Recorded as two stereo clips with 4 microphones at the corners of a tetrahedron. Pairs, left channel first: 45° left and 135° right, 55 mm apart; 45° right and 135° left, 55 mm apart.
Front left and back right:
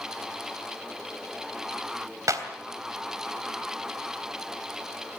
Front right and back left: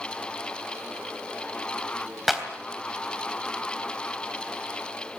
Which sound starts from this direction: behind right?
A clap, at 2.3 s.